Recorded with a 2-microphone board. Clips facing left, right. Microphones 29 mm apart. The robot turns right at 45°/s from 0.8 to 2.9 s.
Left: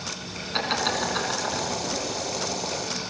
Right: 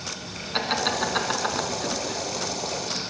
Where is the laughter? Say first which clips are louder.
Right 1 dB; 5° right (ahead or behind), 3 m; by 3.1 s 55° right (ahead or behind), 3 m.